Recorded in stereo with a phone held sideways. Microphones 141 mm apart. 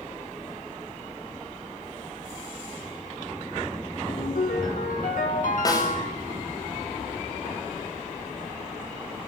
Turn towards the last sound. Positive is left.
turn(degrees=25)  # may be behind; listen again after turning